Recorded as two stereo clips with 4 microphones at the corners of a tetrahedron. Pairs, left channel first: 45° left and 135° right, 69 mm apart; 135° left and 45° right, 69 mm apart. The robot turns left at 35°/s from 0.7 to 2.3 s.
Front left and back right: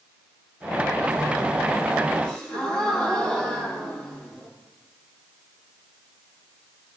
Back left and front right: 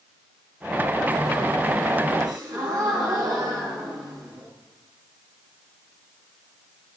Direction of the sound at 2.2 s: 25° right.